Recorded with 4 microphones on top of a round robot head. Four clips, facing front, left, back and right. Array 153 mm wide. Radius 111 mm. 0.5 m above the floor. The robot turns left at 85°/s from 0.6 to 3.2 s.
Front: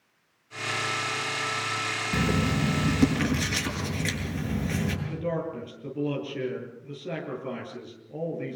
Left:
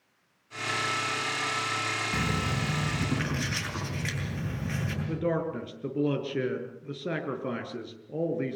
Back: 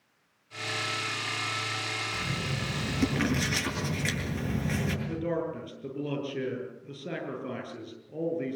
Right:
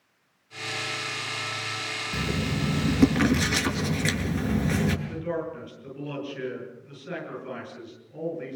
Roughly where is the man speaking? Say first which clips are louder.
Left 2 dB, even; left.